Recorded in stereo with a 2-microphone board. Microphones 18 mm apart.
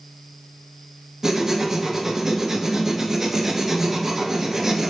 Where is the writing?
25° right (ahead or behind), 0.6 m.